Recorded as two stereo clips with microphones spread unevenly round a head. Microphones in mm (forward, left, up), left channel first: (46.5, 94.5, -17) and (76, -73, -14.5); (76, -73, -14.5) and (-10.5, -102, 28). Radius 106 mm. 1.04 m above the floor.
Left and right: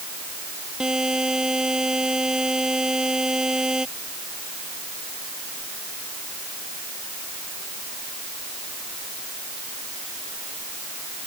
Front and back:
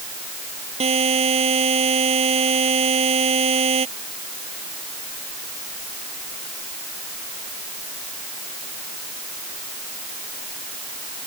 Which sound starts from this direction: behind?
A buzzer, at 0.8 s.